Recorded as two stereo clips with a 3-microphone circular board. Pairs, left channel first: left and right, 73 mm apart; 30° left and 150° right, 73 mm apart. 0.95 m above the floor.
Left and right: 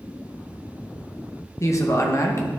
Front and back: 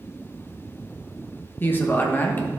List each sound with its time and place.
1.6 s a man speaking: 80° left, 1.1 m